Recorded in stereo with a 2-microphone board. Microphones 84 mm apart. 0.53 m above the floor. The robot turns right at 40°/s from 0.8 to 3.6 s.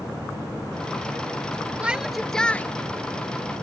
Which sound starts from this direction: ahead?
A shout, at 1.8 s.